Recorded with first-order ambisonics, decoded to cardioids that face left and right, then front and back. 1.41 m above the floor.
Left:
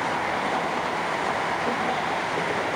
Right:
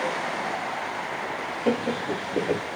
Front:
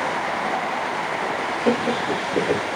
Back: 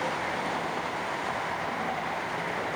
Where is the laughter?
25° right, 0.5 m.